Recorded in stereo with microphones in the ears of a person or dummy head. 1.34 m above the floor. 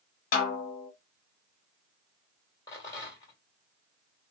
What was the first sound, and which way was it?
A snare drum, 55° left (ahead or behind).